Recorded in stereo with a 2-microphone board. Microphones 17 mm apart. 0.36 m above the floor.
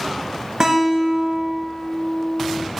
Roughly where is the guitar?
Right.